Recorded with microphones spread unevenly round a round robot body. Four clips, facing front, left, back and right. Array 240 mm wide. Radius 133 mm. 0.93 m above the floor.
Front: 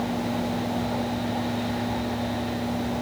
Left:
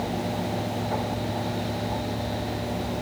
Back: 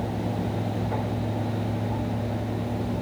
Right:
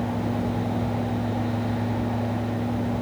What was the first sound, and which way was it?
Only background noise.